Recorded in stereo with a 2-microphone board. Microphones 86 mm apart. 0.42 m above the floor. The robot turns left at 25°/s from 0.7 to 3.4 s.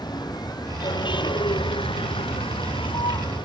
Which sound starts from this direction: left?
A vehicle, at 0.0 s.